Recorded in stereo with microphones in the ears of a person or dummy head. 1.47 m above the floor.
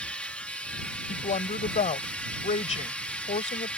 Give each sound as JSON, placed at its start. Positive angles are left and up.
{"t": 0.0, "sound": "a machine running", "side_deg": 5}
{"t": 1.1, "sound": "a woman speaking", "side_deg": 35}